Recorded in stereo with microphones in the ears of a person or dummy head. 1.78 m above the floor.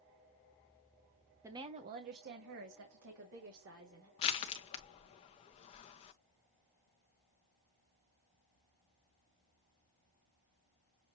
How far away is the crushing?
About 0.9 m.